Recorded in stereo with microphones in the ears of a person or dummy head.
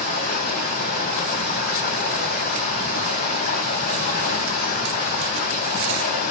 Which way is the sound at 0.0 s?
55° left (ahead or behind).